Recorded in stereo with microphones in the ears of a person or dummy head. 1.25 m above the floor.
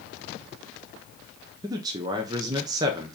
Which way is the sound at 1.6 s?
20° right (ahead or behind).